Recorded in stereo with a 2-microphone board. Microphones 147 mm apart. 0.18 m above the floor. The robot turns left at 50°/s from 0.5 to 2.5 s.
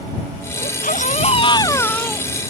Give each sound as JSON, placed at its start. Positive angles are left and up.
{"t": 0.6, "sound": "a baby crying", "azimuth_deg": 80}